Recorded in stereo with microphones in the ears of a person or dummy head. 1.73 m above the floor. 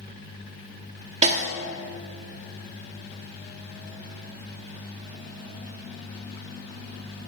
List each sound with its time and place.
1.2 s a snare drum: 40° right (ahead or behind), 1.3 m